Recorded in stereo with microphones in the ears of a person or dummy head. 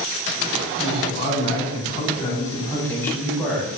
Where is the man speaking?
30° left (ahead or behind), 10 m; by 3.7 s 5° left (ahead or behind), 9.5 m.